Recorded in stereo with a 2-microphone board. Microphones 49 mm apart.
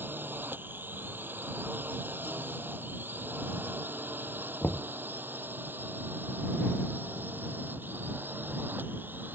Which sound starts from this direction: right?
A drone, at 0.0 s.